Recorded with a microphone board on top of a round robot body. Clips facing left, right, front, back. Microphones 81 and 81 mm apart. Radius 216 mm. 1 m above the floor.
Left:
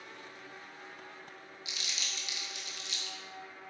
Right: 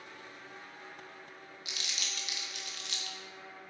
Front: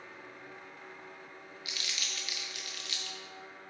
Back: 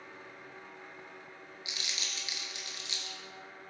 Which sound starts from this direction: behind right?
Crumpling, at 1.6 s.